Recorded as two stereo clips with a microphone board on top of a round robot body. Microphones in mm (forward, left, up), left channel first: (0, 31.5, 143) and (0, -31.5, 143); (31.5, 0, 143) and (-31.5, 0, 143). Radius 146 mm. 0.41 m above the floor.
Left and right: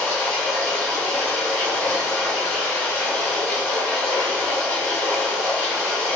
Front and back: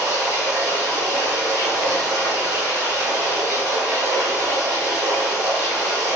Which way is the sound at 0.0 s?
140° left.